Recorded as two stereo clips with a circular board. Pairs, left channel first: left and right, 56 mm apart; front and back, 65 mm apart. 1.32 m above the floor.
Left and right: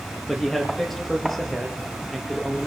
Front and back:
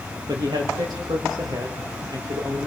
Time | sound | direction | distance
0.3 | a man speaking | 175° left | 2.5 m